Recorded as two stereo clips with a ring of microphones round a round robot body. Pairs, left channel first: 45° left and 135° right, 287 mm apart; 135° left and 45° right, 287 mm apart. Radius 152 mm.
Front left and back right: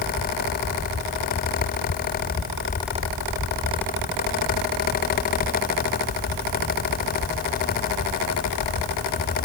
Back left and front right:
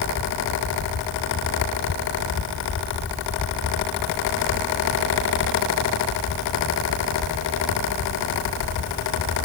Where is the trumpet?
No trumpet in this recording.